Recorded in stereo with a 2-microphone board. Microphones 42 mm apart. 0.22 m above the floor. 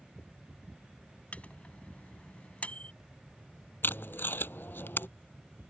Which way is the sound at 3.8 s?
60° left (ahead or behind).